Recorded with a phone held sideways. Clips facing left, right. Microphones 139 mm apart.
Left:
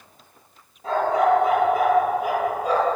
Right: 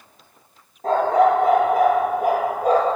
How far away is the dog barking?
About 9 m.